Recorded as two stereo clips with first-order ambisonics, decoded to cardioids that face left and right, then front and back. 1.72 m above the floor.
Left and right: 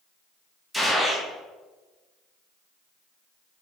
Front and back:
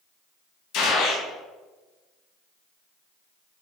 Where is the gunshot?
5° left, 0.8 m.